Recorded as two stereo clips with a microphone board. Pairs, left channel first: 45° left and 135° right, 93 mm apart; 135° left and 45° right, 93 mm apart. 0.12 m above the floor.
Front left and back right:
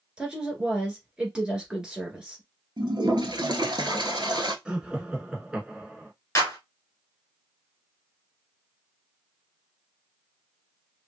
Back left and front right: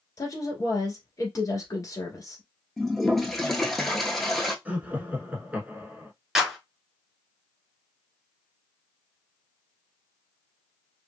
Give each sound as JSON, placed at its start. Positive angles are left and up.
{"t": 0.2, "sound": "a woman speaking", "azimuth_deg": 150, "distance_m": 1.6}
{"t": 2.8, "sound": "a toilet flushing", "azimuth_deg": -140, "distance_m": 0.8}
{"t": 4.7, "sound": "laughter", "azimuth_deg": -75, "distance_m": 1.1}
{"t": 6.3, "sound": "a clap", "azimuth_deg": 35, "distance_m": 1.5}